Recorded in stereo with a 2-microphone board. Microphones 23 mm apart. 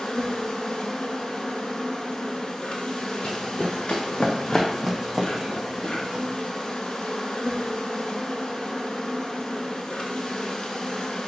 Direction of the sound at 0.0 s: 40° left (ahead or behind).